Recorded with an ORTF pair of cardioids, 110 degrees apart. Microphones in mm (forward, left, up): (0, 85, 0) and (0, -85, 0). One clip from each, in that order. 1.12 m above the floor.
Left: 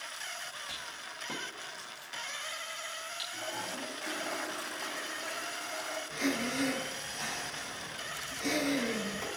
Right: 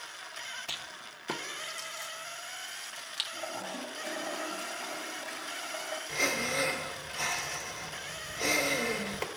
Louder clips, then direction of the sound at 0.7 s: Right 1 dB; 55° right.